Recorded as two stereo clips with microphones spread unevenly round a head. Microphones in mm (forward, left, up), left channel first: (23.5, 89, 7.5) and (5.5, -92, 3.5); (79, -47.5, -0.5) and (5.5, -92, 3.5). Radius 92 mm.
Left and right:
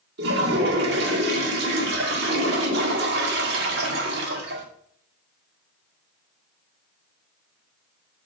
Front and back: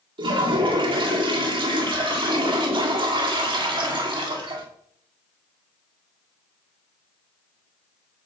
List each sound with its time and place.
0.2 s a toilet flushing: 130° right, 2.0 m